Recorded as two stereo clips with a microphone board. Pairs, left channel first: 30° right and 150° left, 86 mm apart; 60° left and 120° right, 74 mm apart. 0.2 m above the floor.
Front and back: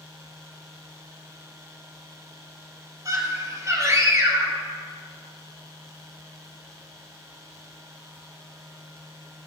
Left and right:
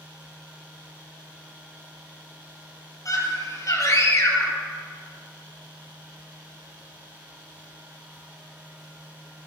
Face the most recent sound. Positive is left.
turn(degrees=100)